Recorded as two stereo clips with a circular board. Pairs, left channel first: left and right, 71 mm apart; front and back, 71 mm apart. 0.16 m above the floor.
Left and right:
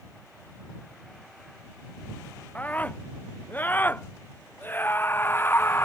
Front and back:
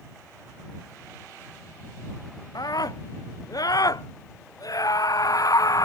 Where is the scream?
20° left; by 5.9 s 35° left.